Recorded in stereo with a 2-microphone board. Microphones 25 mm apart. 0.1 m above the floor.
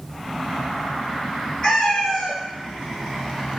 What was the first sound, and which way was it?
A cat meowing, 25° left (ahead or behind).